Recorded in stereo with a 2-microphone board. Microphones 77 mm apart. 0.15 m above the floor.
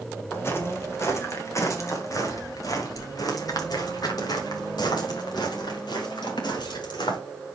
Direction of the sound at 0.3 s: 30° left (ahead or behind).